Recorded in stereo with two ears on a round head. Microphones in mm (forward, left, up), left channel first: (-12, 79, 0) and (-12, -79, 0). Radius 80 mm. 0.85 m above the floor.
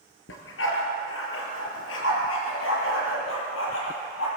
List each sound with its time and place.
0.3 s a dog barking: 85° left, 4.5 m; by 4.3 s 80° left, 7 m